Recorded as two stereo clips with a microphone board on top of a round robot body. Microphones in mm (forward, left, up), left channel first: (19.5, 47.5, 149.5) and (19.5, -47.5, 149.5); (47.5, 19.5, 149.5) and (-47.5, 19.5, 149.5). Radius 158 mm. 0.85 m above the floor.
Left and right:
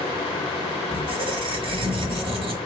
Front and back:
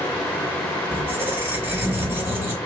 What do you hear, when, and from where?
0.9 s a squeak: 110° right, 1.0 m